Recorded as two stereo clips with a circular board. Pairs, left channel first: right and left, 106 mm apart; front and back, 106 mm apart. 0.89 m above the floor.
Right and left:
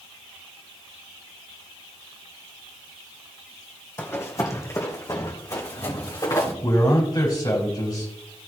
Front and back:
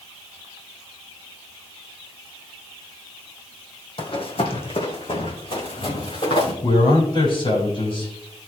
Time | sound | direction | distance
4.0 | running footsteps | 25° right | 1.9 m
6.6 | a man speaking | 35° right | 5.5 m